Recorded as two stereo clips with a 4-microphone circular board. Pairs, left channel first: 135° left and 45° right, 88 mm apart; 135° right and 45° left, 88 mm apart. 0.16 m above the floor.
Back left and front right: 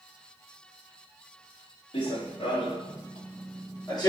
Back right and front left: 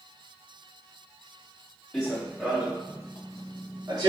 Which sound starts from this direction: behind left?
Running footsteps, at 1.9 s.